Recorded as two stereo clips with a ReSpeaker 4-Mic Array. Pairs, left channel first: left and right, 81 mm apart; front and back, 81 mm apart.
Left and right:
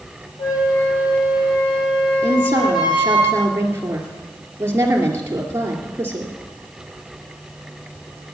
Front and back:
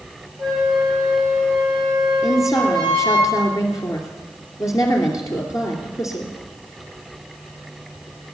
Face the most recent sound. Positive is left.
turn(degrees=-35)